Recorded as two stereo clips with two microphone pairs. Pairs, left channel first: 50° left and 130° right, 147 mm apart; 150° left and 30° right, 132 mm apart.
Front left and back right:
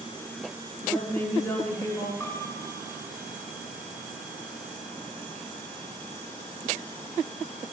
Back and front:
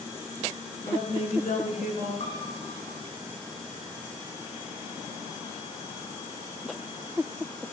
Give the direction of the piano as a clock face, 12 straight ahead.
8 o'clock.